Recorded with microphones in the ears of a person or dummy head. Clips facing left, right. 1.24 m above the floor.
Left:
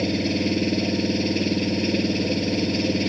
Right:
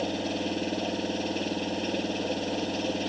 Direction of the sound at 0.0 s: 35° left (ahead or behind).